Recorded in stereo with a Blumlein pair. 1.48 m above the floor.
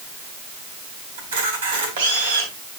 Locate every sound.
1.2 s a camera shutter: 60° right, 3.5 m